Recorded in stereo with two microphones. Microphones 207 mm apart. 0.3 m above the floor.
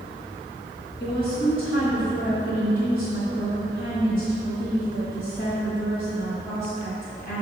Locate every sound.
1.0 s a woman speaking: 45° left (ahead or behind), 1.7 m